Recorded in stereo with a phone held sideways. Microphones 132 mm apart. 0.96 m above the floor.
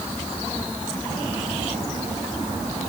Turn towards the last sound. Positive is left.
No sound to turn to.